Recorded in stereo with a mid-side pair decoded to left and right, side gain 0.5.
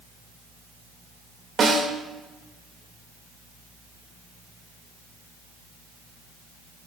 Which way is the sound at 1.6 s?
40° right.